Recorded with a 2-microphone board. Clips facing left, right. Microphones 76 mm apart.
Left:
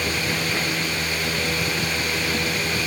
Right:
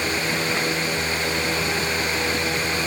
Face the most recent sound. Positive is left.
No sound to turn to.